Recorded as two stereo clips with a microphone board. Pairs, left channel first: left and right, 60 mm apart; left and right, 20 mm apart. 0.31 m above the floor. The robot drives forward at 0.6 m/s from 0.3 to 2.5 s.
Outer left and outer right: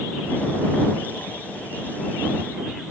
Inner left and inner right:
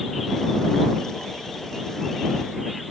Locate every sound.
Only background noise.